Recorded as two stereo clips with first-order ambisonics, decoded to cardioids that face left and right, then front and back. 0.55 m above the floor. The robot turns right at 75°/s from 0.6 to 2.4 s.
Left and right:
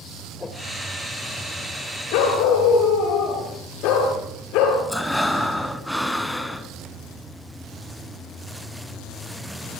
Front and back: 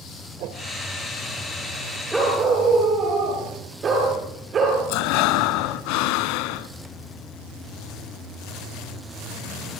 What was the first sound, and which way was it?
A whoosh, 165° left.